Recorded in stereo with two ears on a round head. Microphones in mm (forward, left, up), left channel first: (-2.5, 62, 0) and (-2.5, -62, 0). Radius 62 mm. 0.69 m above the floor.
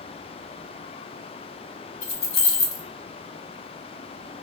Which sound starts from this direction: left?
Keys jangling, at 2.0 s.